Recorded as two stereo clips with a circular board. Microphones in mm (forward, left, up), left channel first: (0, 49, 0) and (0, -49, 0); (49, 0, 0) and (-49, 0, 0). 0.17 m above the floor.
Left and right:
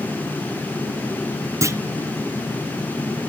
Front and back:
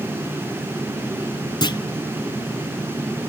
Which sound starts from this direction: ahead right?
A clunk, at 1.6 s.